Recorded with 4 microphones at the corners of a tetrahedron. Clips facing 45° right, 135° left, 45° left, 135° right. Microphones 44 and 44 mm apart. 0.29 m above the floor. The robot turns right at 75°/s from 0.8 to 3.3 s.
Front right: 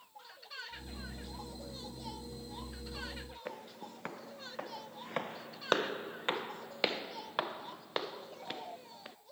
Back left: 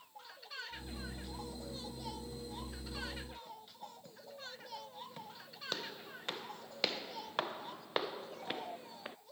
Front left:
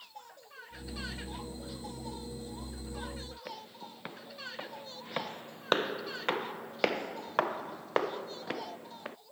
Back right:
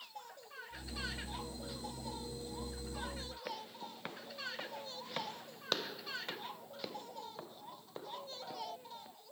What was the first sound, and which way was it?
Footsteps, 50° right.